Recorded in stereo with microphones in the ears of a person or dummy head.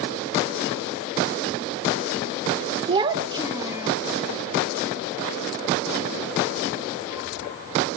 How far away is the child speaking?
About 0.6 m.